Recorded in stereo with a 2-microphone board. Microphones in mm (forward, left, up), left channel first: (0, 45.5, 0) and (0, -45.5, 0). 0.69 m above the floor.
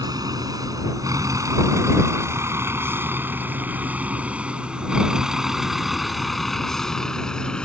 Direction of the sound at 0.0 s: 45° right (ahead or behind).